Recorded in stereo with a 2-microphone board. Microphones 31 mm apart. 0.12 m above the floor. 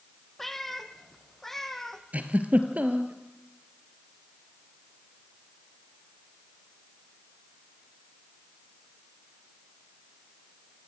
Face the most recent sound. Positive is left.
turn(degrees=-55)  # may be behind; listen again after turning